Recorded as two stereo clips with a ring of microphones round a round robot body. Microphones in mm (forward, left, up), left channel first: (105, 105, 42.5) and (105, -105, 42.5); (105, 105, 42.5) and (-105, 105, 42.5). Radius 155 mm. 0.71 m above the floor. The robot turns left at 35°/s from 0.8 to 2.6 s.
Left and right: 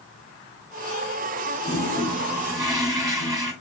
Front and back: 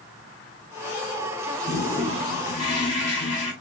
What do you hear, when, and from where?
1.6 s a toilet flushing: 20° left, 4.5 m; by 3.5 s 15° right, 4.5 m